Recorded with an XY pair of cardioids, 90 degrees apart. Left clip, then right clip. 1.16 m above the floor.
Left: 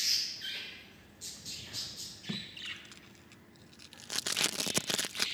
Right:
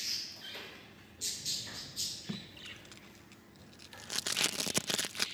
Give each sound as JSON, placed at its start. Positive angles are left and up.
{"t": 2.3, "sound": "tape being pulled", "azimuth_deg": 10}